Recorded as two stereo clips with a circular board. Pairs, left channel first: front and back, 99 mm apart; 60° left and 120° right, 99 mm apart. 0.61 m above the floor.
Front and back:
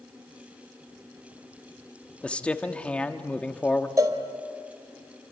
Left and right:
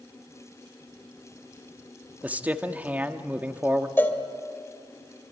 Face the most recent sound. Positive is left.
turn(degrees=130)